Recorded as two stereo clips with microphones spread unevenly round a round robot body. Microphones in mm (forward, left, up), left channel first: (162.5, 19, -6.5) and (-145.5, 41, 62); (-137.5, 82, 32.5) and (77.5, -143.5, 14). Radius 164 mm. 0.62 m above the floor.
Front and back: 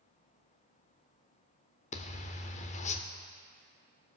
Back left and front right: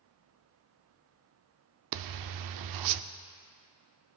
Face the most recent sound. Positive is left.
turn(degrees=-75)